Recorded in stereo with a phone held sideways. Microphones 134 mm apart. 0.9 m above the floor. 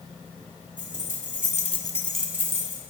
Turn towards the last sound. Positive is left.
turn(degrees=-25)  # may be behind; listen again after turning